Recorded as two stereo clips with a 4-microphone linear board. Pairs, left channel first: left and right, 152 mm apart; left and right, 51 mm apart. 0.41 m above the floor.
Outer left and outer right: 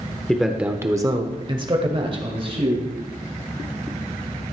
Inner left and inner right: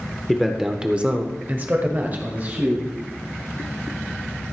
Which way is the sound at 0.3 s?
5° left (ahead or behind).